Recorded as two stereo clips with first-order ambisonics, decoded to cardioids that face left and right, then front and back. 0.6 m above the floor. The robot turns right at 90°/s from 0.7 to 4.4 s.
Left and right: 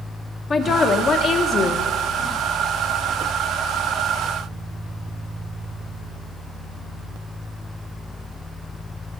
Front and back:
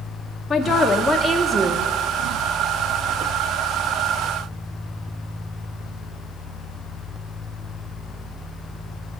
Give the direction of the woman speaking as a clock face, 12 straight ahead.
10 o'clock.